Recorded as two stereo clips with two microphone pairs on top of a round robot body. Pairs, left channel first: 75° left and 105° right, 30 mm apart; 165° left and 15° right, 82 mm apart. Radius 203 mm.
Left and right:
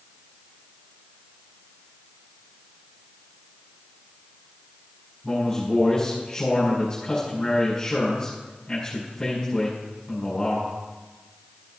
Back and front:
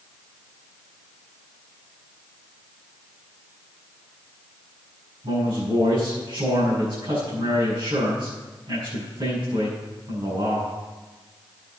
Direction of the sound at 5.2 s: Straight ahead.